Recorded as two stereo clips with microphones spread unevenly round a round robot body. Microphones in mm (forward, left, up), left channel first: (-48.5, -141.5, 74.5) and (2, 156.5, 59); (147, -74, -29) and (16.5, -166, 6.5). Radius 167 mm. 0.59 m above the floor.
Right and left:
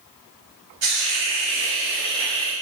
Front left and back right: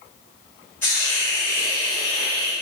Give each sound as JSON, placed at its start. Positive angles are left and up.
{"t": 0.8, "sound": "a hiss", "azimuth_deg": 100, "distance_m": 1.6}